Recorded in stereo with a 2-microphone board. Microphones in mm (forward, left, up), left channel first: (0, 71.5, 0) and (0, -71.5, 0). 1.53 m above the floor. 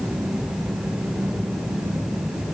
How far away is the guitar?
I don't hear a guitar.